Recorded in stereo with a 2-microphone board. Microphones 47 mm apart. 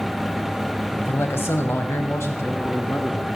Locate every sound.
1.0 s a man speaking: 50° left (ahead or behind), 2.5 m; by 3.3 s 60° left (ahead or behind), 4 m